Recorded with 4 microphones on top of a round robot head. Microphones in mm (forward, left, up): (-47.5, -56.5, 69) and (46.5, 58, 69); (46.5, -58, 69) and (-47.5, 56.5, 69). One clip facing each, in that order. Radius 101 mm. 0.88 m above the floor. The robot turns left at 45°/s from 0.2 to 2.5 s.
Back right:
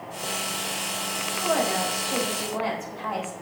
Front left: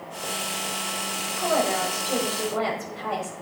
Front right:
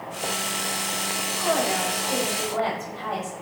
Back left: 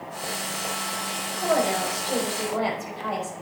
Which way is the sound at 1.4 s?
100° left.